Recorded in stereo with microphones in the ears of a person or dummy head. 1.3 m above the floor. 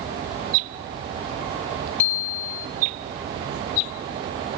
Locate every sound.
2.0 s a bicycle bell: 35° left (ahead or behind), 3 m